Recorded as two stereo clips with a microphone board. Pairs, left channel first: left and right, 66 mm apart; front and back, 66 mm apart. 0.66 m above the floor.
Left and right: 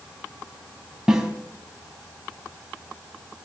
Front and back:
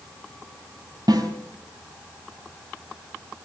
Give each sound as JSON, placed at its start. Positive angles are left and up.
{"t": 1.1, "sound": "a snare drum", "azimuth_deg": -170, "distance_m": 3.5}